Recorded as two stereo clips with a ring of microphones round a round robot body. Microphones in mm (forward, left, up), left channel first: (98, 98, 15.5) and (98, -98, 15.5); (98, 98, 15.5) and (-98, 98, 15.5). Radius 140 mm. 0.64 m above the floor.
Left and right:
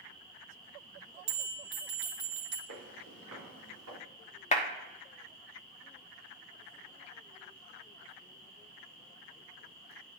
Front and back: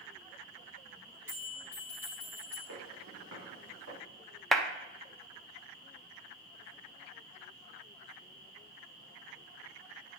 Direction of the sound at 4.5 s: 85° left.